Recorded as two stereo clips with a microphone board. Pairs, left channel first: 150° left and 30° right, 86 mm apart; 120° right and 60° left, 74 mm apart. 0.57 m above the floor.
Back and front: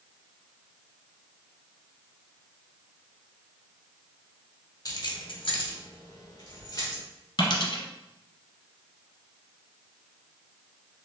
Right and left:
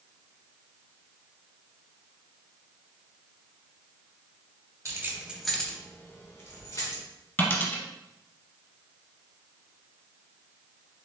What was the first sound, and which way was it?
Keys jangling, 105° left.